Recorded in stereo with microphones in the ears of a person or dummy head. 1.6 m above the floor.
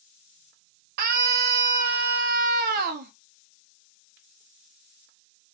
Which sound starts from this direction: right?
A scream, at 1.0 s.